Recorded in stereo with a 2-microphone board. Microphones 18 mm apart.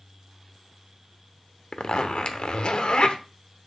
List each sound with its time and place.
1.7 s a zipper: 70° left (ahead or behind), 0.8 m